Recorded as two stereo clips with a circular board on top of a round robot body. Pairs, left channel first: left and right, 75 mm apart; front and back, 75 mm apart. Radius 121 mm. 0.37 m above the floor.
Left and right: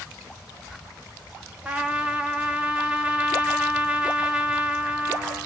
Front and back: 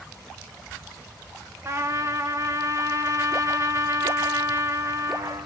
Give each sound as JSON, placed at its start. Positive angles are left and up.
{"t": 1.6, "sound": "a trumpet", "azimuth_deg": -160, "distance_m": 0.9}